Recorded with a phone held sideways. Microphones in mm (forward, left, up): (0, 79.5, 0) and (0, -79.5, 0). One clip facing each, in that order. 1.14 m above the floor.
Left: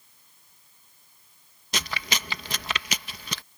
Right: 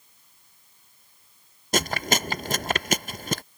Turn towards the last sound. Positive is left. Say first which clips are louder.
# right 8 dB
turn(degrees=-50)  # may be behind; listen again after turning